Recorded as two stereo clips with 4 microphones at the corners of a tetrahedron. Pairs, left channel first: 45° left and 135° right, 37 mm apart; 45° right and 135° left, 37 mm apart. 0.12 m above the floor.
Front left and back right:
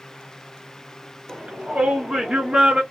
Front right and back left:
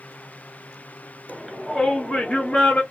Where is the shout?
150° right, 1.2 m; by 2.8 s 80° right, 1.5 m.